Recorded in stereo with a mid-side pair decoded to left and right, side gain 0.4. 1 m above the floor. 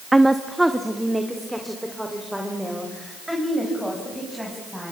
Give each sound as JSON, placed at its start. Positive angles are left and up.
{"t": 0.1, "sound": "a woman speaking", "azimuth_deg": -15, "distance_m": 0.9}